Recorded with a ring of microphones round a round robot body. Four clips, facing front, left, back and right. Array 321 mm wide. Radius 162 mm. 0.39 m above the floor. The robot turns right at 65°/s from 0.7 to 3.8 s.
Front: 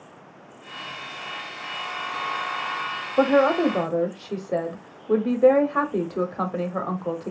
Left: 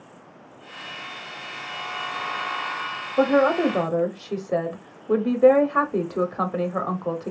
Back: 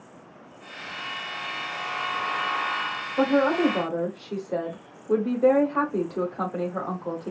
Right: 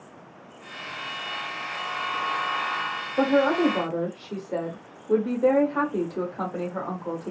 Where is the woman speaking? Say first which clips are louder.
Left 2 dB, front 3 dB; 20° left, 1.0 m; by 7.3 s 60° left, 1.0 m.